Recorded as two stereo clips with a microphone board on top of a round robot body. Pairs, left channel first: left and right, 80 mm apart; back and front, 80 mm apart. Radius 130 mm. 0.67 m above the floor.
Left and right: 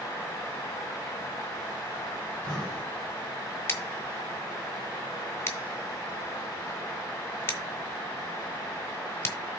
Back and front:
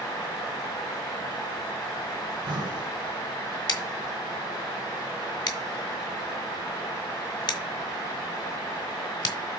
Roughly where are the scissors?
Behind left.